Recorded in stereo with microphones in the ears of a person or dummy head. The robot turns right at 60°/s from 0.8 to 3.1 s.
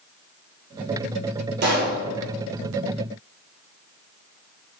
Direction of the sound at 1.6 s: 50° right (ahead or behind).